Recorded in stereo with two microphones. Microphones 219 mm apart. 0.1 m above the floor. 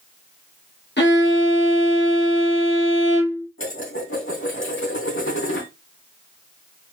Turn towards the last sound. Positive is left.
turn(degrees=65)  # may be behind; listen again after turning